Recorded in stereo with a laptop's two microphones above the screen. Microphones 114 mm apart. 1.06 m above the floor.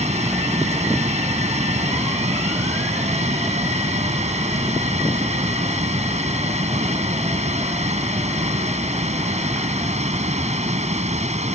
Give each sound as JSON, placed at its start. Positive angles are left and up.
{"t": 0.0, "sound": "running water", "side_deg": -85}